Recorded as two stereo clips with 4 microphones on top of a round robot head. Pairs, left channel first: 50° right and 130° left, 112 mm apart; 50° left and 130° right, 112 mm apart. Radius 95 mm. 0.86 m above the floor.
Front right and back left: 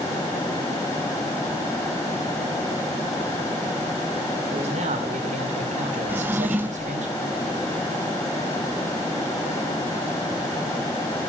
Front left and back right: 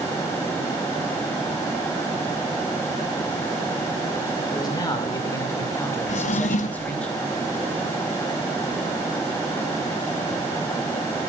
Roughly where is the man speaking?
Left.